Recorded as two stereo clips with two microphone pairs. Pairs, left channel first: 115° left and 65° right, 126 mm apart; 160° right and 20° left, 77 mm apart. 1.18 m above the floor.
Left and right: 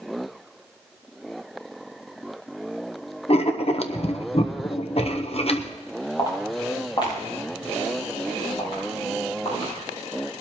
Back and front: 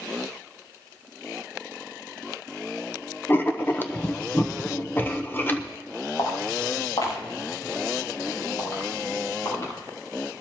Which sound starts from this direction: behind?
Footsteps, at 6.2 s.